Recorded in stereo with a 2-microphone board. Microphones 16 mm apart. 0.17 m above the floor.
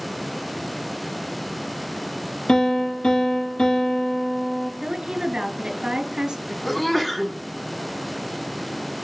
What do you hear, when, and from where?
2.5 s a piano: 75° left (ahead or behind), 2 m
4.8 s a woman speaking: 55° right (ahead or behind), 2 m
6.7 s a sneeze: 15° left (ahead or behind), 1.3 m